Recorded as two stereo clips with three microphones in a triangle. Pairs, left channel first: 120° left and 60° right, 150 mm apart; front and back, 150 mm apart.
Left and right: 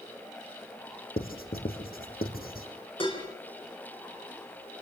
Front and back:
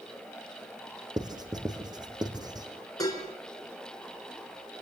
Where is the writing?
115° left, 3.5 m.